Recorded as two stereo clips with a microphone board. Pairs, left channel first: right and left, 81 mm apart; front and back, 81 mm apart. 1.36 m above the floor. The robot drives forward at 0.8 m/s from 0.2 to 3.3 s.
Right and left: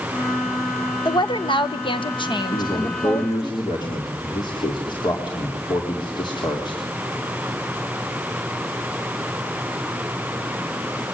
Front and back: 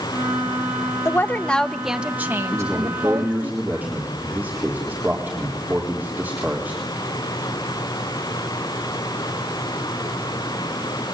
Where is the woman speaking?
60° right, 1.2 m; by 3.5 s 140° right, 1.6 m.